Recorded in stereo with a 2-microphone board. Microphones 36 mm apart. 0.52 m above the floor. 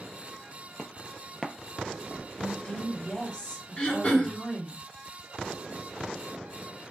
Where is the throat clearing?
35° left (ahead or behind), 1.2 m.